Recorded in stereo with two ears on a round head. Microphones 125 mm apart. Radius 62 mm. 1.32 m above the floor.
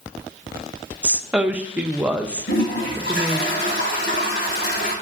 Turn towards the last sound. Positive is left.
turn(degrees=75)  # may be behind; listen again after turning